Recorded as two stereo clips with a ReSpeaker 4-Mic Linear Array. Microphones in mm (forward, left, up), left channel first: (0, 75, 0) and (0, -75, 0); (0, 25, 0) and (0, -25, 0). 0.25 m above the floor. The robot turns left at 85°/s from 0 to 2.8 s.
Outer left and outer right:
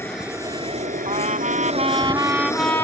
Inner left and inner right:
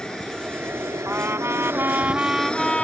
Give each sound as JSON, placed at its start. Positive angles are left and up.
{"t": 0.0, "sound": "an aircraft", "azimuth_deg": 15}
{"t": 1.1, "sound": "a trumpet", "azimuth_deg": -50}